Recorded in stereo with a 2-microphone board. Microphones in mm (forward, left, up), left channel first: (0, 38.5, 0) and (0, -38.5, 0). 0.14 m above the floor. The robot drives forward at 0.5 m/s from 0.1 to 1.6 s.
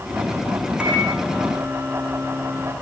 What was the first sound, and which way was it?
A microwave, 15° right (ahead or behind).